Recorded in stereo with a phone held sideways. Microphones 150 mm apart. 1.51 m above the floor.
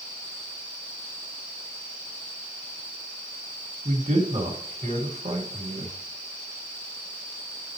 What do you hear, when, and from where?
3.9 s a man speaking: 55° right (ahead or behind), 2 m